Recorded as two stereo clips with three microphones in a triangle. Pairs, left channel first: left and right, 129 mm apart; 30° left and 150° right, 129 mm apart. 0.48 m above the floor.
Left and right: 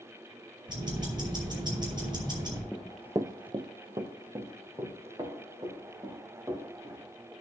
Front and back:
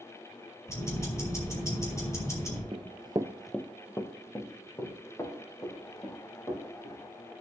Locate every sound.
0.7 s ticking: 35° right, 4 m
2.7 s running footsteps: 170° left, 0.8 m; by 7.3 s 35° right, 6 m